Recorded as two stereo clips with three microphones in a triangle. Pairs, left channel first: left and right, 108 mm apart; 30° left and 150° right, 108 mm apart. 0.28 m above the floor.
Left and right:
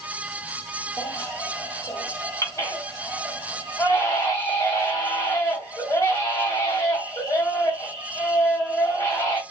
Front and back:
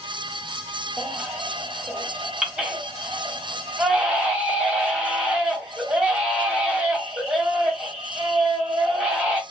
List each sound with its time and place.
1.0 s a baby crying: 135° left, 1.2 m